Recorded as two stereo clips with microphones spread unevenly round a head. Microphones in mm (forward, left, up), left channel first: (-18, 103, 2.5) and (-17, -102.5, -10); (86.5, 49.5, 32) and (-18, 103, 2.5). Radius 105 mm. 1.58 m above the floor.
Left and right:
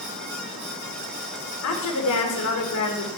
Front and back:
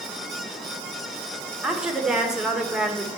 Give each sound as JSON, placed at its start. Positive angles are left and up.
{"t": 1.6, "sound": "a woman speaking", "azimuth_deg": 65, "distance_m": 2.0}